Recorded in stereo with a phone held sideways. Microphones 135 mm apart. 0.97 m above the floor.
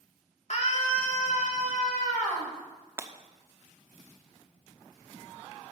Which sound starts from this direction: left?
A scream, at 0.5 s.